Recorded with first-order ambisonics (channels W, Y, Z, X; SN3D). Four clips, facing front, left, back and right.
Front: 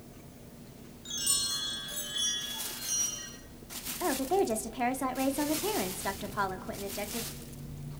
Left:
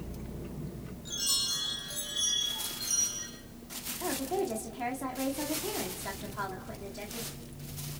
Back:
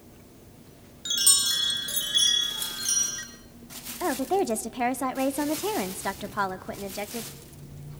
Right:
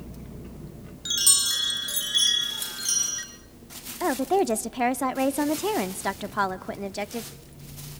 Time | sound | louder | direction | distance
1.1 | a chime | right 8 dB, back 9 dB | 130° right | 3 m
4.0 | a woman speaking | right 10 dB, back 3 dB | 110° right | 0.9 m